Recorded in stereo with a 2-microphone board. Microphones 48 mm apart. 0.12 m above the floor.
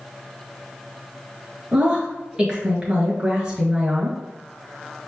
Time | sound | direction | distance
1.7 | a woman speaking | 20° right (ahead or behind) | 1.7 m